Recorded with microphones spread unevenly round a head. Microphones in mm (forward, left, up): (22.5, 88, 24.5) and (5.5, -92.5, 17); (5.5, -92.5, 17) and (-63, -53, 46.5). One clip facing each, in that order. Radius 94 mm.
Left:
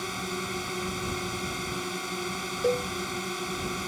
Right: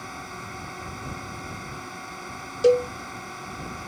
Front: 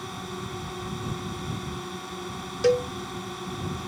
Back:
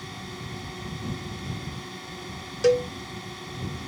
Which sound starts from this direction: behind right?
A cowbell, at 2.6 s.